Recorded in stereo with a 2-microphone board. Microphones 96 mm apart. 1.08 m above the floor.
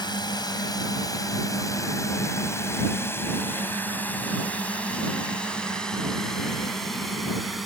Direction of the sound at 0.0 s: 50° left (ahead or behind).